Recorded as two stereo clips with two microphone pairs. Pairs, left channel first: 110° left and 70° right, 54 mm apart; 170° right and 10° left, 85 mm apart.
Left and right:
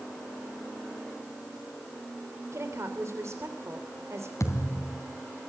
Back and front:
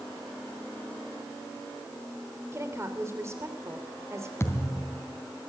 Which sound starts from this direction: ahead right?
A woman speaking, at 2.5 s.